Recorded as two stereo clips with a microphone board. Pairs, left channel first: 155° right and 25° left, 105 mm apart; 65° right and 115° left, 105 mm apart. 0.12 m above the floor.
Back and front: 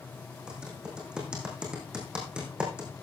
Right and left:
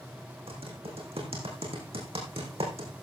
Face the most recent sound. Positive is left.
turn(degrees=105)